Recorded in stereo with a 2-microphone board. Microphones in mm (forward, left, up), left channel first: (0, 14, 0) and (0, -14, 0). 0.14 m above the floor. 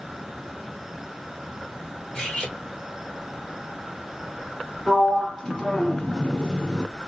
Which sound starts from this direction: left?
Cutlery clinking, at 2.1 s.